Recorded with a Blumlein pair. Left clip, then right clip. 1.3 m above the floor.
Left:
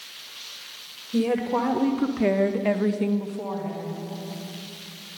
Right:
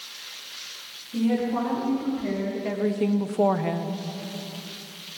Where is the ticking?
I don't hear ticking.